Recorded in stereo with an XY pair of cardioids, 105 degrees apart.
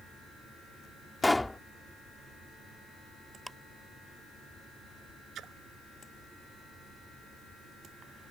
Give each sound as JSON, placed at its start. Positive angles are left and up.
{"t": 1.2, "sound": "a pop", "azimuth_deg": 10}
{"t": 3.5, "sound": "ticking", "azimuth_deg": -5}
{"t": 5.3, "sound": "a splash", "azimuth_deg": -65}